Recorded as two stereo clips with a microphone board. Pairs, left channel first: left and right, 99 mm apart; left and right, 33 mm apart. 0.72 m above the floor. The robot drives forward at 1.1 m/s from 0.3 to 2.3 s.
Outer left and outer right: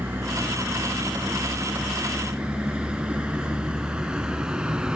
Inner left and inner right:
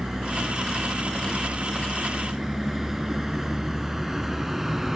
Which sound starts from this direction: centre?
A vehicle, at 0.0 s.